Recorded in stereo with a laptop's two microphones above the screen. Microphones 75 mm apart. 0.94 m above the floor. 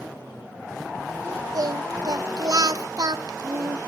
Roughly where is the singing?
Right.